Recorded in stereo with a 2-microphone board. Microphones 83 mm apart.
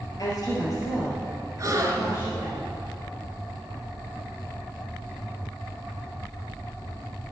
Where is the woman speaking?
50° left (ahead or behind), 2.5 m; by 2.6 s 35° left (ahead or behind), 4 m.